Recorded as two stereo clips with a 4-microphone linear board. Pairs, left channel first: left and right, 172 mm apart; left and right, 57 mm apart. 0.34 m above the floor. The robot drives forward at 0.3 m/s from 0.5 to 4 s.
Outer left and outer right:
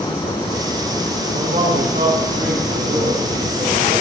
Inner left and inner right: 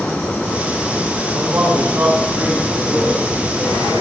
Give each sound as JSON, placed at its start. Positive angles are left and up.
{"t": 1.3, "sound": "a man speaking", "side_deg": -55, "distance_m": 4.5}